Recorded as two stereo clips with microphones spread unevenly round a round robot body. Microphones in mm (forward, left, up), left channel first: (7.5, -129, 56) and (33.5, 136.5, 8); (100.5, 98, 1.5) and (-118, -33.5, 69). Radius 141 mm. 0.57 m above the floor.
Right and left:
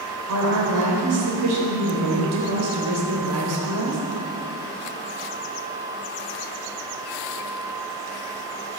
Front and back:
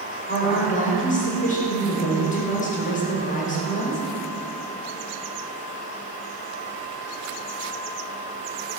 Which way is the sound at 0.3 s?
80° left.